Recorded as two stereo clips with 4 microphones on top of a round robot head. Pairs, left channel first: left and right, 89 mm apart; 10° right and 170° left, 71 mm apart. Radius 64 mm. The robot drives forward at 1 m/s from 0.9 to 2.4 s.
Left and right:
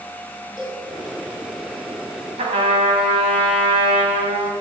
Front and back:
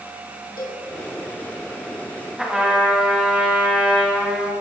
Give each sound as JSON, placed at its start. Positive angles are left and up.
{"t": 0.6, "sound": "a cowbell", "azimuth_deg": -5, "distance_m": 2.5}
{"t": 2.4, "sound": "a trumpet", "azimuth_deg": -100, "distance_m": 2.0}